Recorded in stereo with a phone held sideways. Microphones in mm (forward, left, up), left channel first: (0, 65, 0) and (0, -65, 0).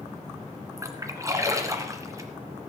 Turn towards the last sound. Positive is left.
turn(degrees=-25)  # may be behind; listen again after turning